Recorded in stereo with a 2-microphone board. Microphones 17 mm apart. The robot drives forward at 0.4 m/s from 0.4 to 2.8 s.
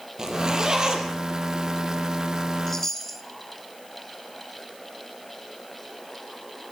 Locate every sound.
0.2 s a zipper: 45° right (ahead or behind), 4 m
2.7 s a chime: 20° left (ahead or behind), 2.5 m